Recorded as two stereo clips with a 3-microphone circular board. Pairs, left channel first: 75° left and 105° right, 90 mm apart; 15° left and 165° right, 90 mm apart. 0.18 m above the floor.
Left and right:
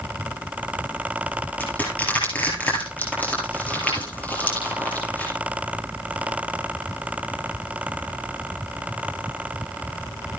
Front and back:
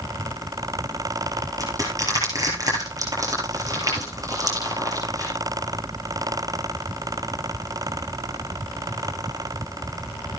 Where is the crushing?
145° left, 8 m.